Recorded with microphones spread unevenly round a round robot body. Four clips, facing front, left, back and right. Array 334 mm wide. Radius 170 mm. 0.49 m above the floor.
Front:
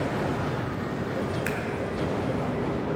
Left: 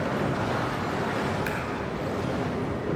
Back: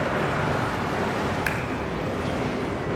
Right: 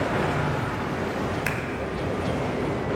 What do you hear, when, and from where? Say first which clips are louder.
1.4 s scissors: right 1 dB, back 2 dB; 115° right, 1.7 m